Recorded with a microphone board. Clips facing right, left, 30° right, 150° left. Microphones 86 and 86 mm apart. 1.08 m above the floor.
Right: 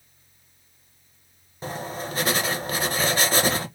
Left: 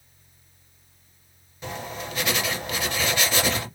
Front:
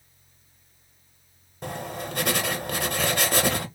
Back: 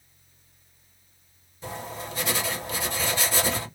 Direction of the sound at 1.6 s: 45° right.